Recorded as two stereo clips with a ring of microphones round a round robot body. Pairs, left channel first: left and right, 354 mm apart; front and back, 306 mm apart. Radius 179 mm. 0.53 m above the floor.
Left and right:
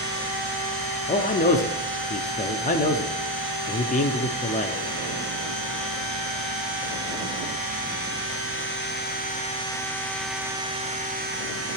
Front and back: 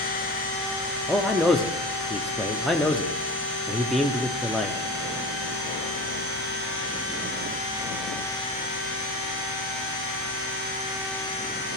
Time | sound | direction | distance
1.1 | a man speaking | 90° left | 0.6 m